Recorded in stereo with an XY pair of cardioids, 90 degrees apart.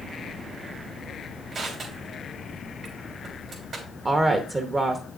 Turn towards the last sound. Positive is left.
turn(degrees=-40)